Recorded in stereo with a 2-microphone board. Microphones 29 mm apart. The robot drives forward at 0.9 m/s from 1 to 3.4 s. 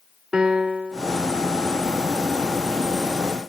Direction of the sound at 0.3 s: 35° right (ahead or behind).